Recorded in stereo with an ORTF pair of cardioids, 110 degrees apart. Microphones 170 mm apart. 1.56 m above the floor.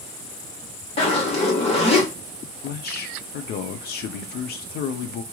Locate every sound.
1.0 s a zipper: 35° left, 1.6 m
2.6 s a man speaking: 70° left, 0.7 m